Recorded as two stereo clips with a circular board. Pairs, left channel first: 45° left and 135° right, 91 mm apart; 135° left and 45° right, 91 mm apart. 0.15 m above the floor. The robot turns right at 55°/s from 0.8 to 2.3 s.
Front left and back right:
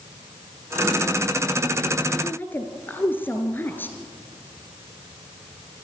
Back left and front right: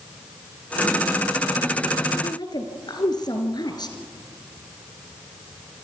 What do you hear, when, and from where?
2.2 s a woman speaking: 105° left, 2 m; by 4.0 s 110° left, 2 m